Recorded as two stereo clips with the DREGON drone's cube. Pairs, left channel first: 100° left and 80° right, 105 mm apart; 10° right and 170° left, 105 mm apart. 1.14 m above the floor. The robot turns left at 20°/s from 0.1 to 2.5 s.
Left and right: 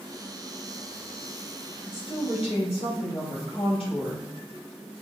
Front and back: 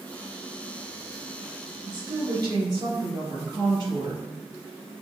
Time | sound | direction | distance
1.9 | a woman speaking | 135° left | 1.8 m